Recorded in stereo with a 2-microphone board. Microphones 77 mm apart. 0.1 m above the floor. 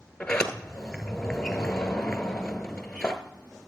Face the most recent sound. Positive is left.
turn(degrees=10)  # may be behind; listen again after turning